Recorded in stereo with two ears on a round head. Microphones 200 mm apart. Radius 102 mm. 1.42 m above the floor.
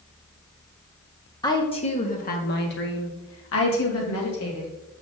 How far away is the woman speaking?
About 1.7 m.